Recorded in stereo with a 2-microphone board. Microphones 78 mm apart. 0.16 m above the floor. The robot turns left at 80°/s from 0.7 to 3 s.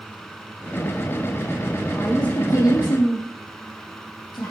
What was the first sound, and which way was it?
A woman speaking, 175° right.